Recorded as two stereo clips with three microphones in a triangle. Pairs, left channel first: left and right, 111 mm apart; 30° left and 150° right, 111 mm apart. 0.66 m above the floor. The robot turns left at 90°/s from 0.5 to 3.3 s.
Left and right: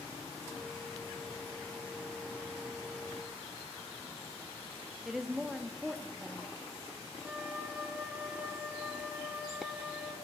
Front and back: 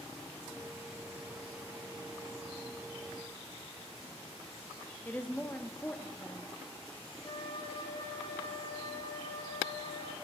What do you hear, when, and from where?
5.0 s a woman speaking: 10° right, 0.6 m
7.2 s a flute: 15° right, 0.9 m